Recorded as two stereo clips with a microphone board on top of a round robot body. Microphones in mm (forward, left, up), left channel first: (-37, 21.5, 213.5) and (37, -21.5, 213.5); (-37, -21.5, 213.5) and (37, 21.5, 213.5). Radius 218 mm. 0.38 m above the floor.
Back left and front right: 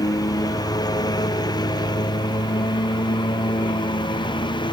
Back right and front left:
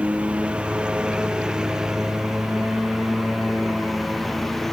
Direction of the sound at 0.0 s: 105° left.